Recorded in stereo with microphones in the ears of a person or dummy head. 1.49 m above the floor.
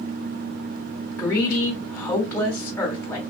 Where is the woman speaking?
10° left (ahead or behind), 1.4 m.